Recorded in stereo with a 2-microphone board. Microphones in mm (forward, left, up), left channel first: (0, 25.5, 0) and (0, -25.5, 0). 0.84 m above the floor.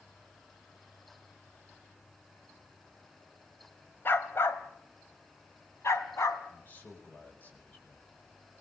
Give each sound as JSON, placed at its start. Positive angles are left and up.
{"t": 4.0, "sound": "a dog barking", "side_deg": 45, "distance_m": 1.7}
{"t": 6.5, "sound": "a man speaking", "side_deg": 35, "distance_m": 5.0}